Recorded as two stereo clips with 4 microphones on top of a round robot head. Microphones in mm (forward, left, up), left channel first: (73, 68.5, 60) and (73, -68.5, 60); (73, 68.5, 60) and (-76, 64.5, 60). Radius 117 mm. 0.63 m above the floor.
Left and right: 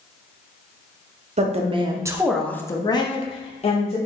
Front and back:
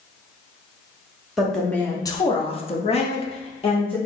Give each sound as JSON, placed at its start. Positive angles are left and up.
{"t": 1.4, "sound": "a woman speaking", "azimuth_deg": -90, "distance_m": 1.1}